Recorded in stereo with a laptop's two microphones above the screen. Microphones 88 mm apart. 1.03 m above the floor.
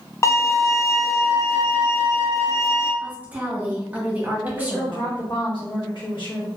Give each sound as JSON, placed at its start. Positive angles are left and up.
{"t": 0.2, "sound": "a violin", "side_deg": 30, "distance_m": 0.6}
{"t": 3.0, "sound": "a woman speaking", "side_deg": -20, "distance_m": 1.1}
{"t": 4.4, "sound": "a woman speaking", "side_deg": 65, "distance_m": 1.3}